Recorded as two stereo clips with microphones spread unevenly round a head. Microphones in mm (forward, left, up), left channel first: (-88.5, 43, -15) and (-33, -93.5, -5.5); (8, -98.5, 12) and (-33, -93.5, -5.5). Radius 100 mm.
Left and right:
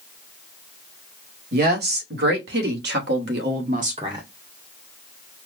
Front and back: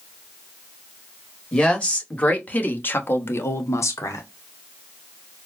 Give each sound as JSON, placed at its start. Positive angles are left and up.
{"t": 1.5, "sound": "a woman speaking", "azimuth_deg": -75, "distance_m": 2.0}